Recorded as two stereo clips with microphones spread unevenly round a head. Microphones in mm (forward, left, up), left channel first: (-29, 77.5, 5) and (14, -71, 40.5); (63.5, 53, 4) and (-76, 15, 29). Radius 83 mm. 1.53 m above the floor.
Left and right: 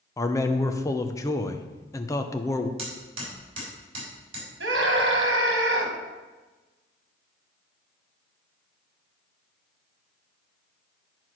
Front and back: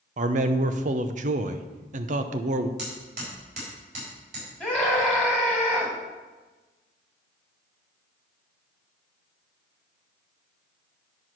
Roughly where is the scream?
Right.